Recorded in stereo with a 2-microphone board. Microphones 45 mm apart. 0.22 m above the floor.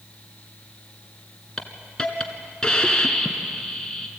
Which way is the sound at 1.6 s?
20° left (ahead or behind).